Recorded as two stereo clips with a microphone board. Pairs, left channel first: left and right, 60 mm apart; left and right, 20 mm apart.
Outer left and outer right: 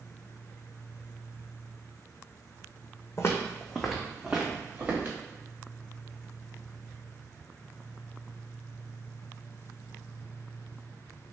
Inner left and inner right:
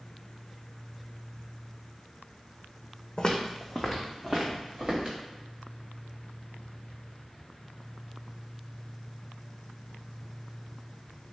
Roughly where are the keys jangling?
No keys jangling in this recording.